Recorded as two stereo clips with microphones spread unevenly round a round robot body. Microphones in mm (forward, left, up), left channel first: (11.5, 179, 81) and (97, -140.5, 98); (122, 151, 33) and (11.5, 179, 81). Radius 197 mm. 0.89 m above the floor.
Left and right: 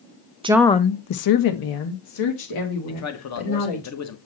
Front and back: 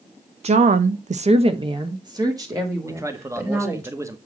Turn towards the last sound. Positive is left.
turn(degrees=85)